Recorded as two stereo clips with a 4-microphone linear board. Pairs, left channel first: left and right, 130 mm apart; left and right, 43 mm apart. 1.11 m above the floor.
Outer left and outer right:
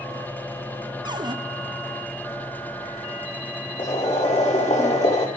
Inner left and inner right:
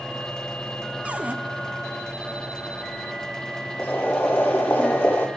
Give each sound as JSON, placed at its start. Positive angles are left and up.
{"t": 1.1, "sound": "a cupboard door", "side_deg": -35, "distance_m": 0.9}
{"t": 3.8, "sound": "boiling", "side_deg": 60, "distance_m": 3.5}